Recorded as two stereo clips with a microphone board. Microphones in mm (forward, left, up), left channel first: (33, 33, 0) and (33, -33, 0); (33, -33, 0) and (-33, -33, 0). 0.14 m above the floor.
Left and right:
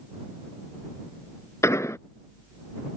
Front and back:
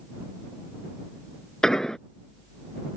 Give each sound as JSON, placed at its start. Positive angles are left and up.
{"t": 1.6, "sound": "an explosion", "azimuth_deg": 75}